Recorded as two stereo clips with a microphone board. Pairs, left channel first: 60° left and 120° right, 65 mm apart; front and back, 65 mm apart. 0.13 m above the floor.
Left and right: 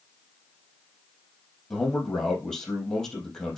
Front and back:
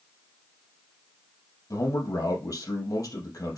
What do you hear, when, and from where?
1.7 s a man speaking: 20° right, 3.5 m